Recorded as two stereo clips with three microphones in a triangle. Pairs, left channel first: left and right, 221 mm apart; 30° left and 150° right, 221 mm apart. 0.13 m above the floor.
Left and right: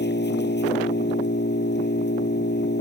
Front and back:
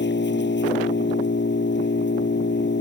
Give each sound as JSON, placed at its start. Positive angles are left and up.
{"t": 0.0, "sound": "an engine running", "azimuth_deg": 60}